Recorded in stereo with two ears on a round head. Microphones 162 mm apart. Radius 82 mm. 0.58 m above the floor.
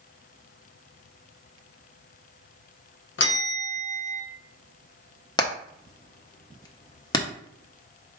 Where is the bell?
70° left (ahead or behind), 0.9 m.